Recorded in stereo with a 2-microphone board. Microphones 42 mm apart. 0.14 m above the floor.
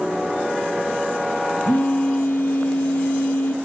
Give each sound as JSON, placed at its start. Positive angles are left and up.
{"t": 1.6, "sound": "a phone buzzing", "side_deg": 55, "distance_m": 3.0}